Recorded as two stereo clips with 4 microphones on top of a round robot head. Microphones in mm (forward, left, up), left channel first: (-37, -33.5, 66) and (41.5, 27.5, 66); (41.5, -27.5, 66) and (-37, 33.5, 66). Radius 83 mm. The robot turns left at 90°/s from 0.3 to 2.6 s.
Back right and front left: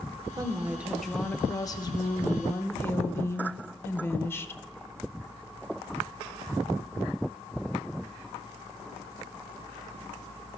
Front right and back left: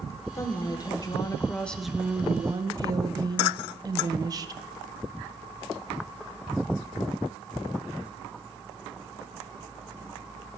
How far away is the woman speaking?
About 0.7 m.